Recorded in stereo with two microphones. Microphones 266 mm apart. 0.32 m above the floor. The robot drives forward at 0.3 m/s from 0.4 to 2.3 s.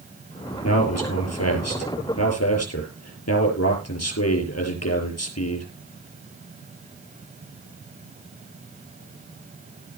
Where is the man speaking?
70° left (ahead or behind), 6 m.